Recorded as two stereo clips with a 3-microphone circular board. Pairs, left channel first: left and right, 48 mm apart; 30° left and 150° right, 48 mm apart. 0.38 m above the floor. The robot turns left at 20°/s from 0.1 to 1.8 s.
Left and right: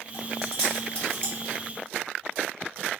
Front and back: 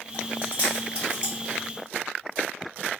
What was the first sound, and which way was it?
Chewing, 165° left.